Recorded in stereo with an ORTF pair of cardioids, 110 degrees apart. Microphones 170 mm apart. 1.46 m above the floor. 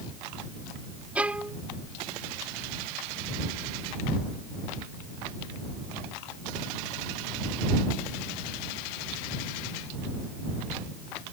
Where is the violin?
5° right.